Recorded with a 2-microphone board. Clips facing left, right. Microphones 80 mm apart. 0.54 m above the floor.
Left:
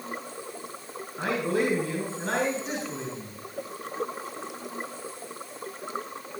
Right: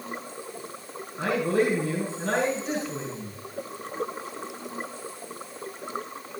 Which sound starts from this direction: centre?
A man speaking, at 1.2 s.